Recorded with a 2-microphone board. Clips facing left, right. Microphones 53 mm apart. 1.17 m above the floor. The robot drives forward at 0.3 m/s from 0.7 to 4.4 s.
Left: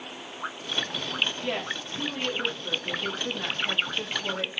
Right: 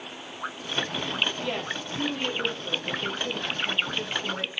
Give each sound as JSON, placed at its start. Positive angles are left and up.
{"t": 1.4, "sound": "a woman speaking", "side_deg": 15, "distance_m": 3.0}